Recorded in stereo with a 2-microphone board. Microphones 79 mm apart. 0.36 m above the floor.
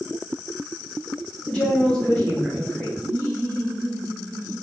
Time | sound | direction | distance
1.5 | a woman speaking | 15° left (ahead or behind) | 1.5 m
3.0 | laughter | 45° left (ahead or behind) | 1.4 m